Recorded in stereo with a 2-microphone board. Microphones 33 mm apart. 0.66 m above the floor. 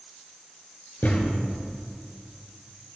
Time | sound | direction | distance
1.0 | a thud | 80° left | 3.5 m